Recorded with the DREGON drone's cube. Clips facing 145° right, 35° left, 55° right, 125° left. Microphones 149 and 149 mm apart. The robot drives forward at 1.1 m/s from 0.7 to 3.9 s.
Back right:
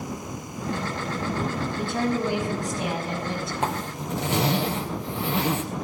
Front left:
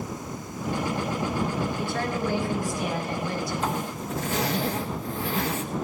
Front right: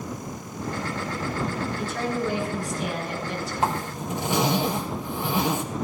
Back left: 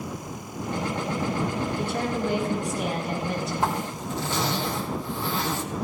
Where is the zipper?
125° right, 3 m; by 5.6 s 130° right, 3 m.